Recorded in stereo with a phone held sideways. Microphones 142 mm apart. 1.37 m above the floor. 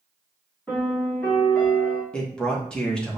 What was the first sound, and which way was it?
A piano, 10° left (ahead or behind).